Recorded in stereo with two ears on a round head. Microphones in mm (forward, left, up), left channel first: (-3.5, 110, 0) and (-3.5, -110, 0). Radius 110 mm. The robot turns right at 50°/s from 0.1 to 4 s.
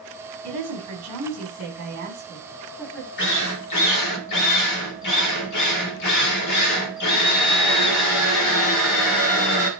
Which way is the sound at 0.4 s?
115° right.